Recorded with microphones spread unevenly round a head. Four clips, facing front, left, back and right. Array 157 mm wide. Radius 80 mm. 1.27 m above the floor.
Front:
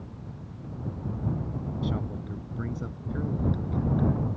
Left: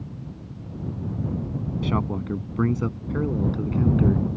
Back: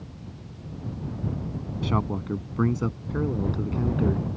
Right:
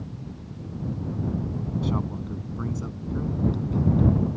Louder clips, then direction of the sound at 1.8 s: Left 5 dB, back 8 dB; 135° left.